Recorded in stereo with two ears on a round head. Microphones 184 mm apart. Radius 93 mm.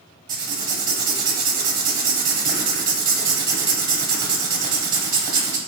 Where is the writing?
20° right (ahead or behind), 1.3 m.